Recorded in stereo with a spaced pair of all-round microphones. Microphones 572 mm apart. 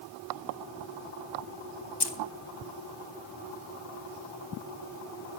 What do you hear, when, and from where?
2.0 s keys jangling: 45° left (ahead or behind), 0.7 m